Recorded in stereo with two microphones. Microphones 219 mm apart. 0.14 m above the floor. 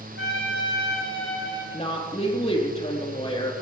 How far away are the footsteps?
No footsteps in this recording.